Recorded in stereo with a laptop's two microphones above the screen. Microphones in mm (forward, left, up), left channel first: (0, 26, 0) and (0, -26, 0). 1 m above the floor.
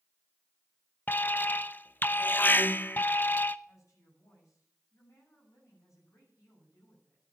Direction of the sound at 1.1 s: 35° left (ahead or behind).